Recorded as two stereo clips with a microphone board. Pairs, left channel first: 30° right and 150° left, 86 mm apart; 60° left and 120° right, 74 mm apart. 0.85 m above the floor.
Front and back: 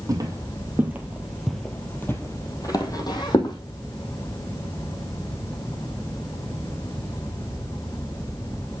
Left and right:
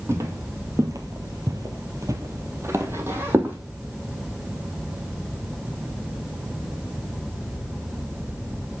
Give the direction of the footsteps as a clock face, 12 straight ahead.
6 o'clock.